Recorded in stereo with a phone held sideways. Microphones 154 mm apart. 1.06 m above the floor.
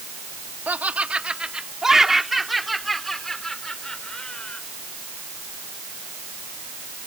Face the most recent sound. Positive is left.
turn(degrees=5)  # may be behind; listen again after turning